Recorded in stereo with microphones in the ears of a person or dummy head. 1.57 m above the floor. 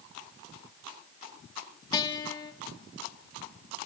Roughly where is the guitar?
Left.